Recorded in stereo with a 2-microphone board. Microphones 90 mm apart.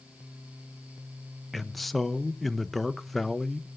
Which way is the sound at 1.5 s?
Centre (ahead or behind).